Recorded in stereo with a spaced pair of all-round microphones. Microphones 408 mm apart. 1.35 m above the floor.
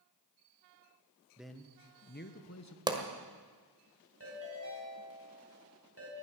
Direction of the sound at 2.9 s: 10° right (ahead or behind).